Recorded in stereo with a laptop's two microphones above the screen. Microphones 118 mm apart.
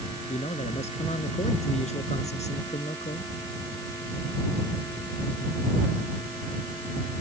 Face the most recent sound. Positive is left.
turn(degrees=70)  # may be behind; listen again after turning